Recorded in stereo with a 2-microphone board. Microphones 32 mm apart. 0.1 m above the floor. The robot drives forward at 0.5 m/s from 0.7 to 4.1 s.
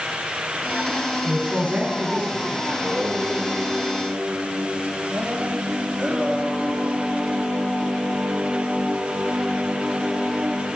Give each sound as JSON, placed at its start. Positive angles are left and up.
{"t": 1.2, "sound": "a man speaking", "side_deg": -65, "distance_m": 7.0}
{"t": 2.7, "sound": "singing", "side_deg": -50, "distance_m": 4.5}